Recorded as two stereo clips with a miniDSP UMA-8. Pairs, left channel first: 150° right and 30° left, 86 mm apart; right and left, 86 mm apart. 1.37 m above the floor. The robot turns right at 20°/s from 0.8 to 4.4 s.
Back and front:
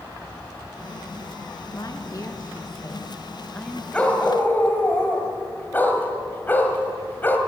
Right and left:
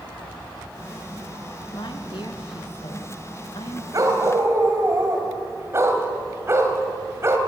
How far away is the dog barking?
About 2.5 m.